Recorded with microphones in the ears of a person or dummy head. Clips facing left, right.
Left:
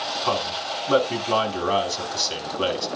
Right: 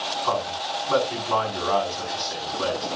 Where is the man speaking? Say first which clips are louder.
Even; 40° left (ahead or behind), 4 m.